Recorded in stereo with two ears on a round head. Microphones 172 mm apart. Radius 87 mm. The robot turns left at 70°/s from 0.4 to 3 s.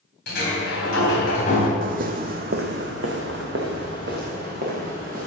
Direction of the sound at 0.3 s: 115° left.